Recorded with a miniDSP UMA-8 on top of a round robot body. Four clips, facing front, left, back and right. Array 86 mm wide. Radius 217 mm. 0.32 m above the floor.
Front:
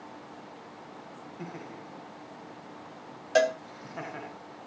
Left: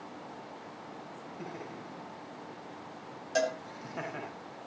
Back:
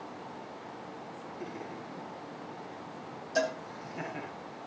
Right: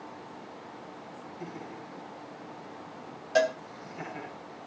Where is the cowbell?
15° right, 3 m.